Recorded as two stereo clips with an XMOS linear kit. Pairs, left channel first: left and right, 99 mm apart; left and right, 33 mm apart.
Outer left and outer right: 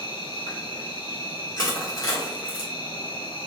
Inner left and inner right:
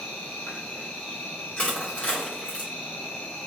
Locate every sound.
0.0 s an insect: 50° left (ahead or behind), 1.8 m
1.6 s crushing: 35° left (ahead or behind), 1.8 m